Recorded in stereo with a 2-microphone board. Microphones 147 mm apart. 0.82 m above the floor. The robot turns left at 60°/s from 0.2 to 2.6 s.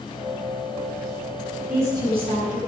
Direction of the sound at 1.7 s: 10° right.